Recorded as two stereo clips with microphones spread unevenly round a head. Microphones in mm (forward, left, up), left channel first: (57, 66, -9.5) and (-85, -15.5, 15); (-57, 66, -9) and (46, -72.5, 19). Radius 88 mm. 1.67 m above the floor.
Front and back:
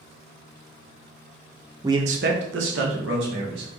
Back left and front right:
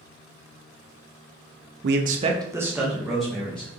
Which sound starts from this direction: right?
A man speaking, at 1.8 s.